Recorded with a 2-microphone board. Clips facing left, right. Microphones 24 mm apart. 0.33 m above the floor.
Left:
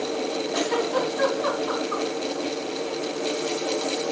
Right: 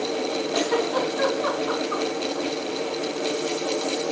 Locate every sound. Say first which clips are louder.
0.5 s a giggle: right 1 dB; 10° right (ahead or behind), 3.5 m